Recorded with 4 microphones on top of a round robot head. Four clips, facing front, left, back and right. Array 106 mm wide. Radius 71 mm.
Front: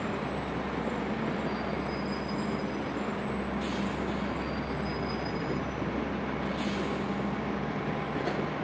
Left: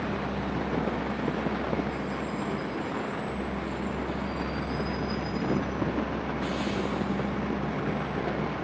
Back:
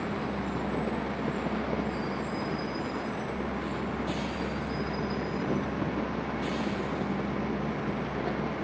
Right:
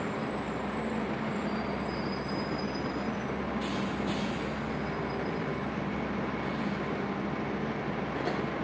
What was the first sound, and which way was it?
Only background noise.